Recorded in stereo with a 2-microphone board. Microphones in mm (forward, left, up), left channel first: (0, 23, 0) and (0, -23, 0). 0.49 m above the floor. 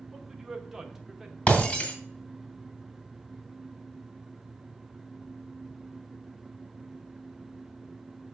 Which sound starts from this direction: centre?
A man speaking, at 0.1 s.